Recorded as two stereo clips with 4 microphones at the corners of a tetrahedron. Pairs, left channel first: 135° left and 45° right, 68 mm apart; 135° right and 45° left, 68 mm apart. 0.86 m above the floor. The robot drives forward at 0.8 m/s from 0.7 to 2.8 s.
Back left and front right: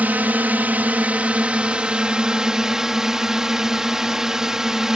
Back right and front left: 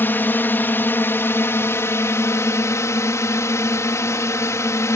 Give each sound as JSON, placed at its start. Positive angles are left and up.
{"t": 0.0, "sound": "a drone", "azimuth_deg": -95}